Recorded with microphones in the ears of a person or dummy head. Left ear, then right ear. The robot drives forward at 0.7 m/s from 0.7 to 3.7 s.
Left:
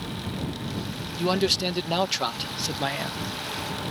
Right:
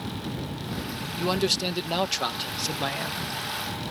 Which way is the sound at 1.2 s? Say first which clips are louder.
Left 2 dB; centre (ahead or behind).